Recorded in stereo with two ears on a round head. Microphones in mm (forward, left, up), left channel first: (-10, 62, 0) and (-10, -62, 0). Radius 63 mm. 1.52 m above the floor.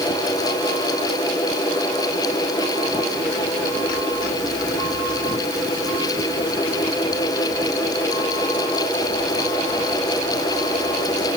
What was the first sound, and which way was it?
Only background noise.